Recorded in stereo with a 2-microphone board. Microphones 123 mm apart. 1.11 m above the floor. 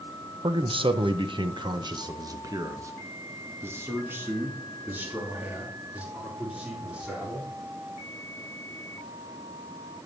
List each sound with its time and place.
0.4 s a man speaking: 50° right (ahead or behind), 0.8 m; by 7.5 s 10° right (ahead or behind), 3.5 m